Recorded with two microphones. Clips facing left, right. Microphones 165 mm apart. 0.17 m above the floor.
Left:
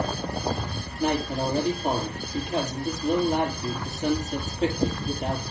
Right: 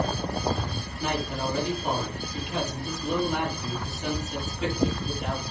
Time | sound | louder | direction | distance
1.0 | a man speaking | left 5 dB | 35° left (ahead or behind) | 5 m